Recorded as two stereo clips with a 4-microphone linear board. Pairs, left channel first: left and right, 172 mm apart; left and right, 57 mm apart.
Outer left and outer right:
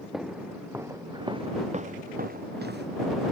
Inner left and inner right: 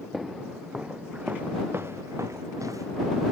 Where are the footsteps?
Centre (ahead or behind); by 2.9 s 75° right (ahead or behind).